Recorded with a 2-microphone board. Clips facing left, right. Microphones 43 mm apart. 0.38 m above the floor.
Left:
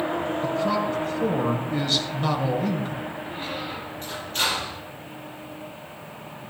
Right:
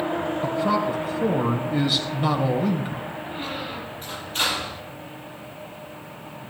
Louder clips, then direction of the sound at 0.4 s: Right 2 dB; 10° right (ahead or behind).